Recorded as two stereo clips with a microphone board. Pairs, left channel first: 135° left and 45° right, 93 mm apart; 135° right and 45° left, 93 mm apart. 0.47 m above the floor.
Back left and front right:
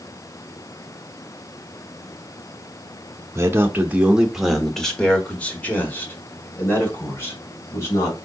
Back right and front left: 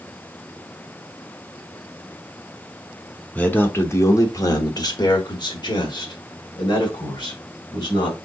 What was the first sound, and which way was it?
A man speaking, 75° right.